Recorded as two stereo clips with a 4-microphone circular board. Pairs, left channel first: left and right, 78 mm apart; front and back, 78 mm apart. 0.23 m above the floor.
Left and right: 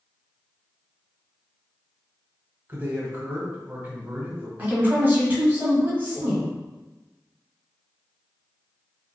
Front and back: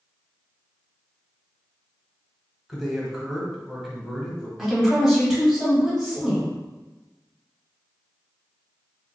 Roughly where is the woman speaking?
Right.